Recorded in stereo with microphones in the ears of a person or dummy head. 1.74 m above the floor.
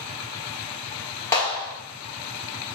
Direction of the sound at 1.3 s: 15° left (ahead or behind).